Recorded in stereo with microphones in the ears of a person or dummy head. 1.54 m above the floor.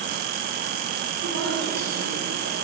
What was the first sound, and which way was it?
A woman speaking, 70° right (ahead or behind).